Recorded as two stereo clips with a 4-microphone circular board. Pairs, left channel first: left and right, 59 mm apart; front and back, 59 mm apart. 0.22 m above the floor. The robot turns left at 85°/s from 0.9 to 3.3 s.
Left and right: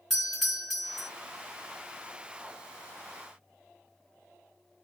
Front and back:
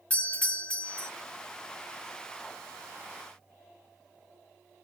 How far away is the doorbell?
About 1.5 m.